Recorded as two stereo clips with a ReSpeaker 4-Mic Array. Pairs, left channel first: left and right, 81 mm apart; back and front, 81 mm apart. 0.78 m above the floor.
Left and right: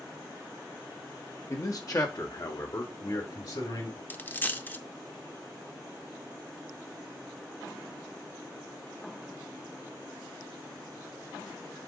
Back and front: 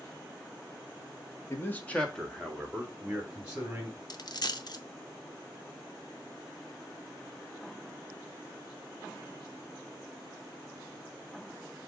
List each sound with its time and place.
1.5 s a man speaking: 130° left, 1.4 m; by 4.0 s 70° left, 3 m
4.1 s a dropped coin: 155° left, 0.6 m